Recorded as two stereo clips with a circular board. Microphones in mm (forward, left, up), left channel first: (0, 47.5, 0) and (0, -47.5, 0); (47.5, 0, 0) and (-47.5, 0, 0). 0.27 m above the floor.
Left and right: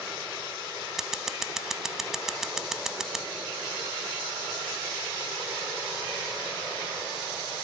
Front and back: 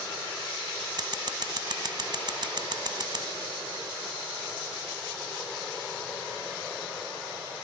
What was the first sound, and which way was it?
Scissors, 175° right.